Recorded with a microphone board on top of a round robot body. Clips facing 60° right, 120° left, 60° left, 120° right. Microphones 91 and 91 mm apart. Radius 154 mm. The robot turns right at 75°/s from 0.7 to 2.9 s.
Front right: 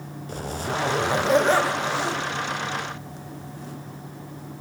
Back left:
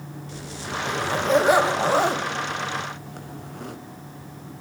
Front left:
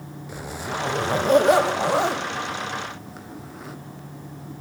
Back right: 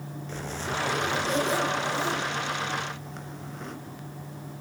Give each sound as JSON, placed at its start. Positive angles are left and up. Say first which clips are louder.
{"t": 0.3, "sound": "a zipper", "louder": "front right 5 dB, front left 2 dB", "azimuth_deg": -20, "distance_m": 1.4}